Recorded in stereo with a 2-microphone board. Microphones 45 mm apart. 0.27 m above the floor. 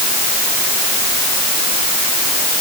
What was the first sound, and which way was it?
Only background noise.